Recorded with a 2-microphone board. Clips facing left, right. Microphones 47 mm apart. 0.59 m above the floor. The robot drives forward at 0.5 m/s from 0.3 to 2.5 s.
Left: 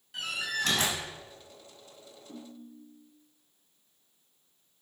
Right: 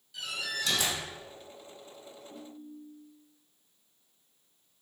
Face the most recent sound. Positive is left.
turn(degrees=55)  # may be behind; listen again after turning